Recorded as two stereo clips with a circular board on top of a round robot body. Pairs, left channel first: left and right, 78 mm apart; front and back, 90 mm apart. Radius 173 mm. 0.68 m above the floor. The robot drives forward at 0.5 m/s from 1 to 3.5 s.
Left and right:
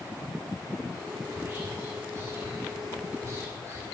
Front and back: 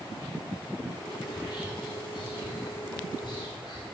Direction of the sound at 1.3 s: 30° right.